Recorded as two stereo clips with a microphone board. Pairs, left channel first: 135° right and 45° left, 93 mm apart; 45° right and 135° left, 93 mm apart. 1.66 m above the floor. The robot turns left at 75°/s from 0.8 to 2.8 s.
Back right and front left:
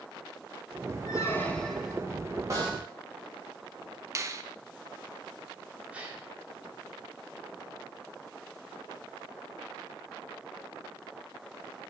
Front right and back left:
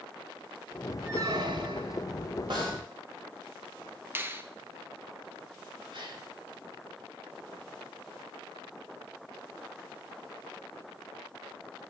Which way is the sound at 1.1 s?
170° right.